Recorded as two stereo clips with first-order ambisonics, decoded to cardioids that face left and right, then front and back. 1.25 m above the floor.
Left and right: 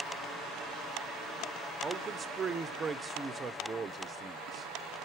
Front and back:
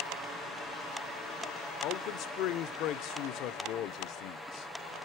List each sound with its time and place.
1.8 s a man speaking: 15° right, 0.6 m